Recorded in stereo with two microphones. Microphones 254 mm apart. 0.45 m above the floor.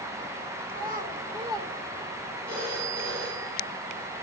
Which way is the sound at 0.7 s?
35° right (ahead or behind).